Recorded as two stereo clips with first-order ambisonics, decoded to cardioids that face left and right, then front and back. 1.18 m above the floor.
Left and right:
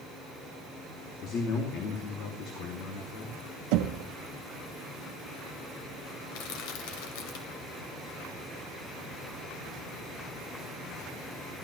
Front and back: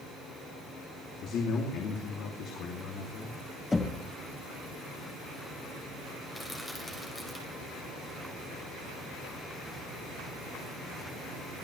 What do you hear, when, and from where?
1.2 s a man speaking: 45° left, 2.5 m
3.7 s knocking: 80° right, 1.0 m
6.3 s crushing: 85° left, 2.5 m